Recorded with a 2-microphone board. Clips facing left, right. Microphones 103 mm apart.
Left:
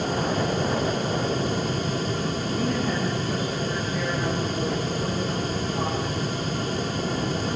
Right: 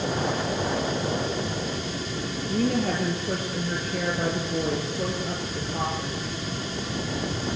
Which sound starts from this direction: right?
A woman speaking, at 2.5 s.